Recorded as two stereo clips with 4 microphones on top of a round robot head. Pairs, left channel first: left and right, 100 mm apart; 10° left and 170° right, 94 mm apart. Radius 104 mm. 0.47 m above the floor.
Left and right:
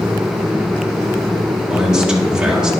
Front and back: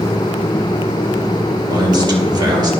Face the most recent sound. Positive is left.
turn(degrees=-170)